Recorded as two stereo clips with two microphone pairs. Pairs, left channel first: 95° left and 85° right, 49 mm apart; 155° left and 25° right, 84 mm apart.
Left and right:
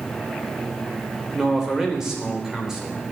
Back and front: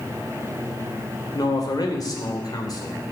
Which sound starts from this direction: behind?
A man speaking, at 1.3 s.